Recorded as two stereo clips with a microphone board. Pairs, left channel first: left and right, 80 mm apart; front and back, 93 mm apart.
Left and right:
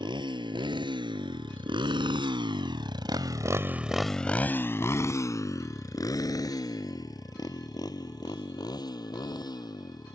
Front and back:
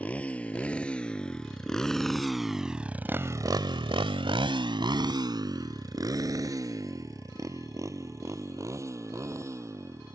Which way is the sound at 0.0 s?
75° right.